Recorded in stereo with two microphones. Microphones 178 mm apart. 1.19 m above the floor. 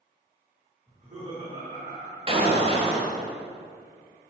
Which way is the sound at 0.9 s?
40° right (ahead or behind).